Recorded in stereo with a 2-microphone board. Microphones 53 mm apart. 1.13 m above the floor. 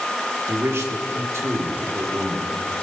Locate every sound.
0.5 s a man speaking: 65° right (ahead or behind), 2.5 m